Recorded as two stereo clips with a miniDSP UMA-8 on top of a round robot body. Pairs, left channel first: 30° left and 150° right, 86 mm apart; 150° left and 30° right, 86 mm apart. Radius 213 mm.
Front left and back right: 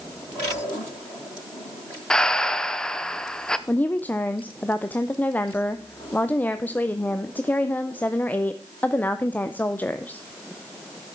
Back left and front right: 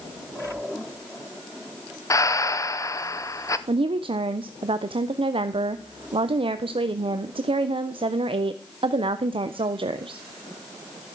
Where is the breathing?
110° left, 1.0 m.